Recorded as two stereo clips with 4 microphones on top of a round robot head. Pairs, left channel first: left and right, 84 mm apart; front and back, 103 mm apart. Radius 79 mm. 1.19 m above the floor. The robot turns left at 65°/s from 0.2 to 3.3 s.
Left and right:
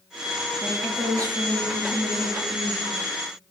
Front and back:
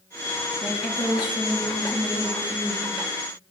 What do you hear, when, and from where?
0.6 s a woman speaking: 5° right, 0.9 m; by 2.9 s 155° right, 0.9 m